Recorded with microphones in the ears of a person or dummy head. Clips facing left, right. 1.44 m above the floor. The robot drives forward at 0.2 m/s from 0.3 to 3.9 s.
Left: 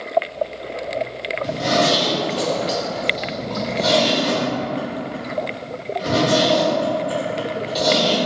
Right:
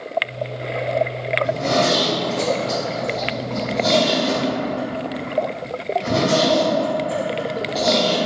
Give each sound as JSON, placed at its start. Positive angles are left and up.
{"t": 1.4, "sound": "a zipper", "side_deg": 15, "distance_m": 1.4}